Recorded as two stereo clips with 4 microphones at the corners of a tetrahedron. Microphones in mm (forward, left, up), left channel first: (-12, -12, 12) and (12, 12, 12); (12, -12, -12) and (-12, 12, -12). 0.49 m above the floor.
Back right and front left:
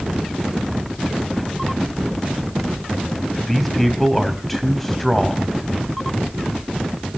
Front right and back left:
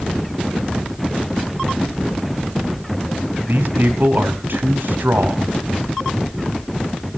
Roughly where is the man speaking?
Behind left.